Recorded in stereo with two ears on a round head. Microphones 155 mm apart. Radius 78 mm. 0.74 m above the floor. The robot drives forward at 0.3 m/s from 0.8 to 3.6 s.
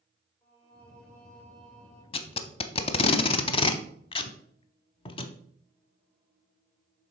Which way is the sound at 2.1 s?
35° left (ahead or behind).